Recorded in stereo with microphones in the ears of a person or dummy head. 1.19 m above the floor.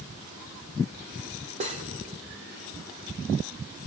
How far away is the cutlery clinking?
About 0.9 m.